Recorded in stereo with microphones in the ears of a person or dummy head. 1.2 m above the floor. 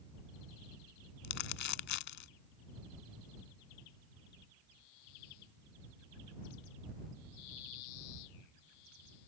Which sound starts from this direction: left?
Crumpling, at 1.2 s.